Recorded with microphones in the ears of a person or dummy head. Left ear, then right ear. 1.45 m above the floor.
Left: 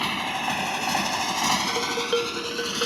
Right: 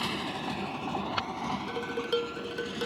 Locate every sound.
0.0 s a motorcycle: 20° left (ahead or behind); by 2.9 s 65° left (ahead or behind)
1.7 s dishes clattering: 20° left (ahead or behind)